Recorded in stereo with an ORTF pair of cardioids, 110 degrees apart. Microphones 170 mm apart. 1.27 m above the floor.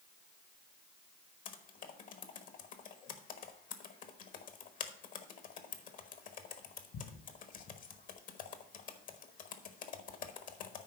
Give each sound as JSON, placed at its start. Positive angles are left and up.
{"t": 1.4, "sound": "typing on a keyboard", "azimuth_deg": 55, "distance_m": 1.1}